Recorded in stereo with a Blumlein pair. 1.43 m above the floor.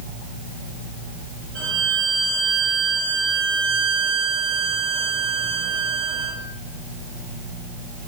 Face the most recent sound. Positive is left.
turn(degrees=-35)